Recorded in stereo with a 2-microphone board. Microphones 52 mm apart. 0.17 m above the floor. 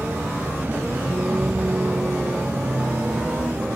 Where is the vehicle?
40° right (ahead or behind).